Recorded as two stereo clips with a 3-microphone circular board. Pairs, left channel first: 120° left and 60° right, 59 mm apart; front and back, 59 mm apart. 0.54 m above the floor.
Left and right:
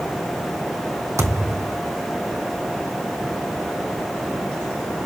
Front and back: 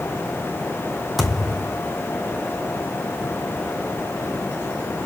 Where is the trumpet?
No trumpet in this recording.